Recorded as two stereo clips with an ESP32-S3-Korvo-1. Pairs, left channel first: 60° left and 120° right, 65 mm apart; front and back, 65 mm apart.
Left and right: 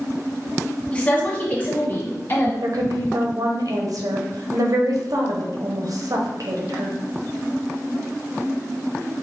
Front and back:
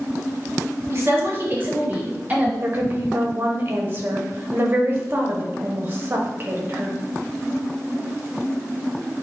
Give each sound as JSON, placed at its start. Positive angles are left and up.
{"t": 0.9, "sound": "a woman speaking", "azimuth_deg": 130, "distance_m": 1.1}
{"t": 2.6, "sound": "a woman speaking", "azimuth_deg": -125, "distance_m": 0.9}